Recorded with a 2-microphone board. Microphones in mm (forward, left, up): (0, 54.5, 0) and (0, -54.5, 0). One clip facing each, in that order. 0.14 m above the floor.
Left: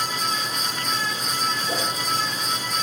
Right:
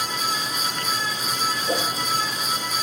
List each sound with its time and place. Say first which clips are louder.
1.7 s a whoosh: right 2 dB; 25° right (ahead or behind), 4.5 m